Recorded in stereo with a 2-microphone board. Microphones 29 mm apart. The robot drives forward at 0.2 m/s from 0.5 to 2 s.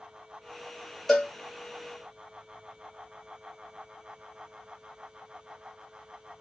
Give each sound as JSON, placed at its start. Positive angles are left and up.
{"t": 1.1, "sound": "a cowbell", "side_deg": 10, "distance_m": 1.5}